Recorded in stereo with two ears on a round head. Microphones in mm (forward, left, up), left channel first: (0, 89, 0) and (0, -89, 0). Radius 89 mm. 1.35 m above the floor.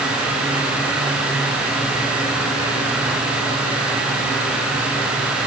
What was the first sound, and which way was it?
Only background noise.